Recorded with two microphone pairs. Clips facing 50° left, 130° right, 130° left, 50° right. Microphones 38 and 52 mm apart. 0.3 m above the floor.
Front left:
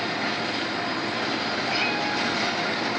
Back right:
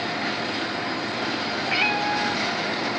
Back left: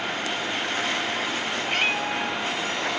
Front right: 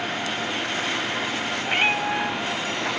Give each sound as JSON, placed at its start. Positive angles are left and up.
{"t": 1.6, "sound": "a cat meowing", "azimuth_deg": -105, "distance_m": 0.6}